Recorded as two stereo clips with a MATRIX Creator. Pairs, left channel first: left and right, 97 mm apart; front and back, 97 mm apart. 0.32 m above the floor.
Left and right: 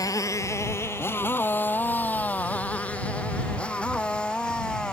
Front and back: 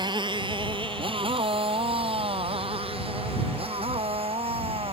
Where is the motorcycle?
140° left; by 4.9 s 170° left.